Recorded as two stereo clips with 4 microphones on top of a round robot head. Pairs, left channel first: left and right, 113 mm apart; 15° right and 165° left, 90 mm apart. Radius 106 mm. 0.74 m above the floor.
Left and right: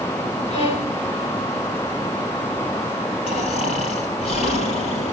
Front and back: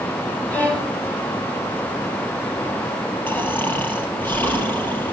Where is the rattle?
I don't hear a rattle.